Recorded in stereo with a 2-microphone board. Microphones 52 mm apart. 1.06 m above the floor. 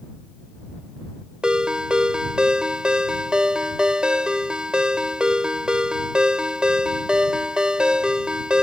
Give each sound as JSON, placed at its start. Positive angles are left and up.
{"t": 1.4, "sound": "a ringtone", "side_deg": -20}